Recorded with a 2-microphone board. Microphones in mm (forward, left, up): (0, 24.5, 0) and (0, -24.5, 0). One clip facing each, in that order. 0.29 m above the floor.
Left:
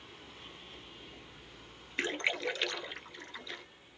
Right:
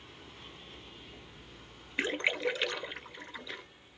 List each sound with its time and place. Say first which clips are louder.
2.0 s a splash: right 2 dB; 5° right (ahead or behind), 0.8 m